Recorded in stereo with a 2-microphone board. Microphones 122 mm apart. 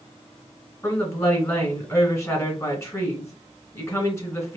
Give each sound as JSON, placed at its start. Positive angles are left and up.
{"t": 0.8, "sound": "a woman speaking", "side_deg": 25, "distance_m": 1.9}